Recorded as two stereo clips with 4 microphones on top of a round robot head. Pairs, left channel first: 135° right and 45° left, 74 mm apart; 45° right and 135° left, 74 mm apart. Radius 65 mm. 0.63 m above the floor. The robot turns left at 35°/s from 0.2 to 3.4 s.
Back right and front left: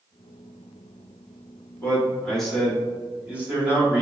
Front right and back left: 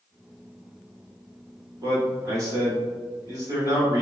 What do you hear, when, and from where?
1.8 s a man speaking: 165° left, 1.5 m; by 4.0 s 105° left, 1.5 m